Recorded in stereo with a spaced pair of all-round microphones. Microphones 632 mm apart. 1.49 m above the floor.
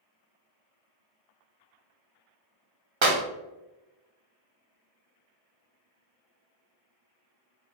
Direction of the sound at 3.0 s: 50° right (ahead or behind).